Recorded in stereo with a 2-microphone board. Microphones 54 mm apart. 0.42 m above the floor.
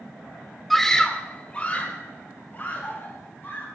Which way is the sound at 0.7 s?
Centre (ahead or behind).